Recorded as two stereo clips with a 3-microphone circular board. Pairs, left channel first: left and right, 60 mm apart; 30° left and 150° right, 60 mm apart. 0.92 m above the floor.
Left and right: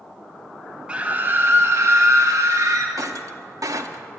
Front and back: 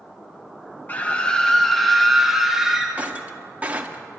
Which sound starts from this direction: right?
Breaking glass, at 3.0 s.